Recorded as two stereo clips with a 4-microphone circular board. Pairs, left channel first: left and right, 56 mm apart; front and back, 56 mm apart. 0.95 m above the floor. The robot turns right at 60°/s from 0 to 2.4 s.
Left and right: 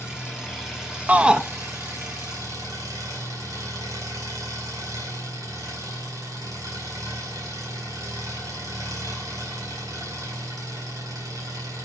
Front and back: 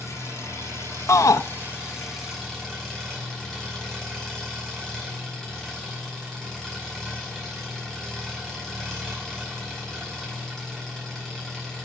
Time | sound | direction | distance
0.0 | an engine running | 140° left | 5 m
1.1 | a shout | 30° right | 0.6 m